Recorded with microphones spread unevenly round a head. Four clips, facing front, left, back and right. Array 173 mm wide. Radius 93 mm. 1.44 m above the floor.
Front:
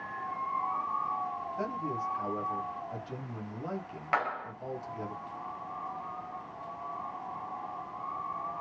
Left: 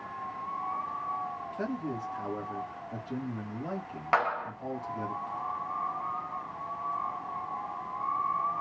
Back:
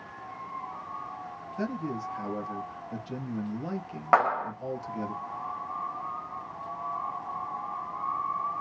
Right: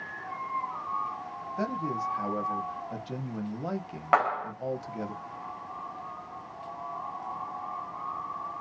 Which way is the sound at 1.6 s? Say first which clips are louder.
Right 4 dB, back 4 dB; 115° right.